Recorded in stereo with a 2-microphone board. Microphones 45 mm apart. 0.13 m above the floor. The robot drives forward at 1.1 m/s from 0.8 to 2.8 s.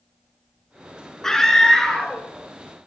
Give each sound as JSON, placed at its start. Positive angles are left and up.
{"t": 1.2, "sound": "a scream", "side_deg": 15, "distance_m": 1.2}